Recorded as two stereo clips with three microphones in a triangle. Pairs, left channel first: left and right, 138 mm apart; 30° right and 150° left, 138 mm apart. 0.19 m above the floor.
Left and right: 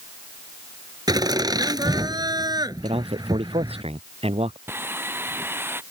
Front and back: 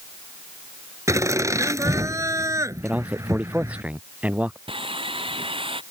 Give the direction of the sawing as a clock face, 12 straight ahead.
5 o'clock.